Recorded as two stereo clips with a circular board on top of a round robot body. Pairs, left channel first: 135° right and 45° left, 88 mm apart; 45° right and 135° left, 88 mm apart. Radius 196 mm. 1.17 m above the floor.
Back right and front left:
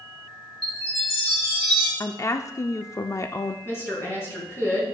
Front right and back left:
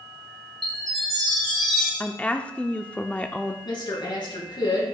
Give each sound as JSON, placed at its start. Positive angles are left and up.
{"t": 0.6, "sound": "a chime", "azimuth_deg": -130, "distance_m": 1.8}
{"t": 2.0, "sound": "a woman speaking", "azimuth_deg": -110, "distance_m": 0.6}
{"t": 3.6, "sound": "a woman speaking", "azimuth_deg": -75, "distance_m": 3.5}